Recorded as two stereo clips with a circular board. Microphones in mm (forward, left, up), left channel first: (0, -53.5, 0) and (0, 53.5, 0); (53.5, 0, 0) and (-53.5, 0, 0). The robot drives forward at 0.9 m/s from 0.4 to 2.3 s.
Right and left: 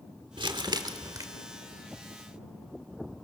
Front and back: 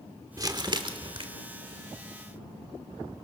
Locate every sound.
0.4 s crumpling: 130° left, 1.3 m; by 1.2 s 145° left, 1.9 m